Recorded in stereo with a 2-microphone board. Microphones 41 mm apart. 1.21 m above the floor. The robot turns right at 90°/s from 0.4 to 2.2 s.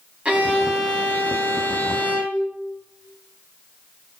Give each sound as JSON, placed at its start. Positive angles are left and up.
{"t": 0.2, "sound": "a violin", "azimuth_deg": -30, "distance_m": 2.5}